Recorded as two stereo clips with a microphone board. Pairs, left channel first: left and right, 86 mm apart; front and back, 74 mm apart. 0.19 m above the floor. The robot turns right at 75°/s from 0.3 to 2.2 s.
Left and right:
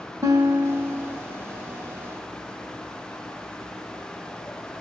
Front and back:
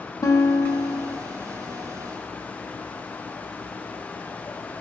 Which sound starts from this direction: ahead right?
A guitar, at 0.2 s.